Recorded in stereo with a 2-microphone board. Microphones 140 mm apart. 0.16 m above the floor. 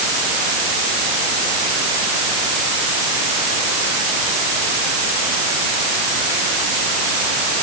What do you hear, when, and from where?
Only background noise.